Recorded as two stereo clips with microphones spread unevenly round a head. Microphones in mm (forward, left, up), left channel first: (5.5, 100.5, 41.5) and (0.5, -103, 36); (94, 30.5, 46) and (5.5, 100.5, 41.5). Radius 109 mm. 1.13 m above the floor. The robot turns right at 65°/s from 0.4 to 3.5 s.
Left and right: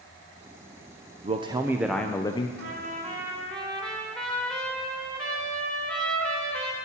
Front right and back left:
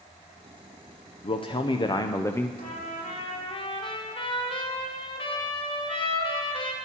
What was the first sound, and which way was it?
A man speaking, 50° right.